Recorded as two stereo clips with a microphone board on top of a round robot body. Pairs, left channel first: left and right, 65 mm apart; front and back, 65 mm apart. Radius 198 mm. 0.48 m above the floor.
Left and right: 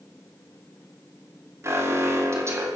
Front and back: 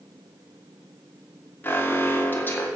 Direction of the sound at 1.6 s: 55° right.